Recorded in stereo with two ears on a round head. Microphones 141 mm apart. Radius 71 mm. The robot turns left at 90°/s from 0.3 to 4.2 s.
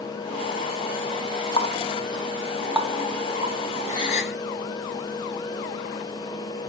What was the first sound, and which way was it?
A running tap, 35° left (ahead or behind).